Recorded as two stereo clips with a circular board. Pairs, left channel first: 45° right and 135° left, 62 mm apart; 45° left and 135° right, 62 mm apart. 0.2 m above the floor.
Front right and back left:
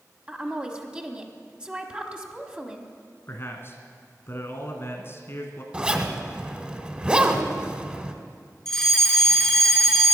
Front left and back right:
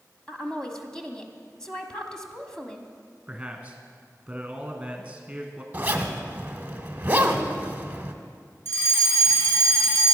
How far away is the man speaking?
About 1.5 m.